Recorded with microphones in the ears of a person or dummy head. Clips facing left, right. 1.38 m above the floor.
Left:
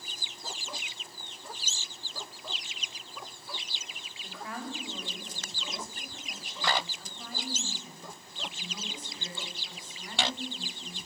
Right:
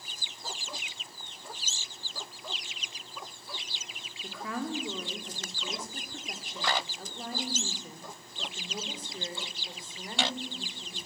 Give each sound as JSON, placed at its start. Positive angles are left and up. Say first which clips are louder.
{"t": 4.2, "sound": "a woman speaking", "louder": "right 4 dB", "side_deg": -75, "distance_m": 4.0}